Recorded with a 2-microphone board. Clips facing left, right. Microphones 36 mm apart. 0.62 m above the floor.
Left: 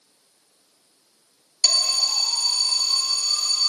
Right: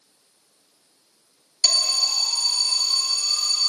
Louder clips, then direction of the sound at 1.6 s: Even; centre (ahead or behind).